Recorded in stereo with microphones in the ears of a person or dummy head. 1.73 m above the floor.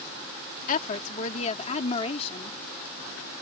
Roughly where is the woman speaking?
Left.